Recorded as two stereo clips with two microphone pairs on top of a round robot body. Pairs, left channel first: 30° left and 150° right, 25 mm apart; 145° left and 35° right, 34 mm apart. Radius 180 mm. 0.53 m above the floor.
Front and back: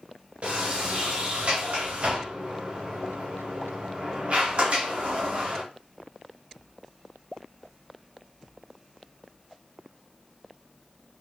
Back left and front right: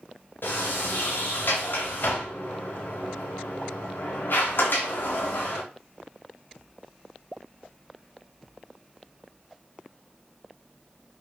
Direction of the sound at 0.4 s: 170° left.